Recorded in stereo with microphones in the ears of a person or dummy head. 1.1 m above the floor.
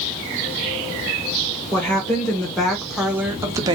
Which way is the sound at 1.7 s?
10° left (ahead or behind).